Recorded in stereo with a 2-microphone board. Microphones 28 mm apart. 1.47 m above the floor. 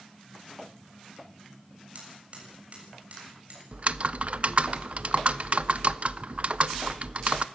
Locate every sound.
1.9 s hammering: 45° right (ahead or behind), 7 m
3.7 s typing on a keyboard: 45° right (ahead or behind), 0.5 m